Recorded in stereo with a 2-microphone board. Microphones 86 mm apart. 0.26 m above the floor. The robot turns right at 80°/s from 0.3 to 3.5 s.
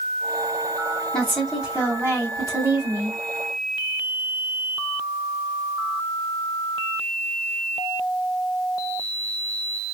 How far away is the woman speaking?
About 1.8 m.